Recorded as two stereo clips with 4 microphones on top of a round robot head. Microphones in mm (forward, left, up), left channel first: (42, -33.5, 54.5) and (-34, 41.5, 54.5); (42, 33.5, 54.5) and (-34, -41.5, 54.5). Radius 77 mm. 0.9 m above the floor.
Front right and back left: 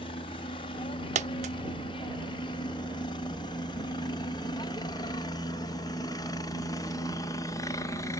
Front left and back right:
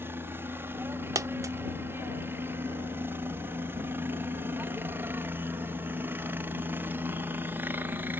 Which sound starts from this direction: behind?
A dropped coin, at 1.1 s.